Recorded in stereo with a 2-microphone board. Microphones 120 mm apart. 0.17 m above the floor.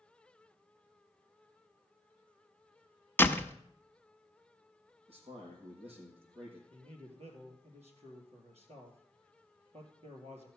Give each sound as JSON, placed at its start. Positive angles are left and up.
{"t": 3.2, "sound": "a door slam", "side_deg": 20, "distance_m": 0.7}
{"t": 5.1, "sound": "a man speaking", "side_deg": -60, "distance_m": 6.0}
{"t": 6.7, "sound": "a man speaking", "side_deg": -65, "distance_m": 3.5}